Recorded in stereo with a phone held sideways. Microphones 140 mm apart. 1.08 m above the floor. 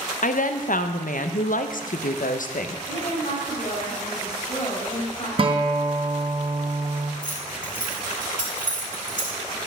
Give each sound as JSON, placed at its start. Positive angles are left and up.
{"t": 0.2, "sound": "a woman speaking", "side_deg": 70, "distance_m": 0.6}
{"t": 2.9, "sound": "a woman speaking", "side_deg": 45, "distance_m": 4.0}
{"t": 5.4, "sound": "a guitar", "side_deg": -40, "distance_m": 0.8}
{"t": 7.2, "sound": "keys jangling", "side_deg": 70, "distance_m": 3.5}